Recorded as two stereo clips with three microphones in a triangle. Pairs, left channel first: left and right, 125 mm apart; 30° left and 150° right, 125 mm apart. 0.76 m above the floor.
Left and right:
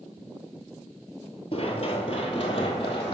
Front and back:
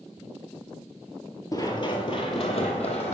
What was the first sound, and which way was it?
Running footsteps, 80° left.